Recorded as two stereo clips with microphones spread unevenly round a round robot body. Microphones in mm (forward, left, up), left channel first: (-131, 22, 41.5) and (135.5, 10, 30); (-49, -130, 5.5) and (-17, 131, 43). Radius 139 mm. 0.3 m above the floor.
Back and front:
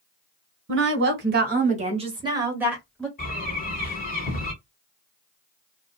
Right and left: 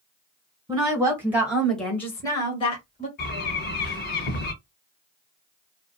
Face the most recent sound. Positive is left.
turn(degrees=-130)